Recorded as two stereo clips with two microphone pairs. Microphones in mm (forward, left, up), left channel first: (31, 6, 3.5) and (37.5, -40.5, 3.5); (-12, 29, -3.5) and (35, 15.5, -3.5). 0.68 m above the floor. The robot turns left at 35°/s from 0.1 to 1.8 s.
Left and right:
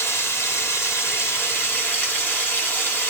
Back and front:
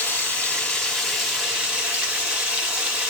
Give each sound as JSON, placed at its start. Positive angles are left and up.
{"t": 0.0, "sound": "running water", "azimuth_deg": 110, "distance_m": 1.3}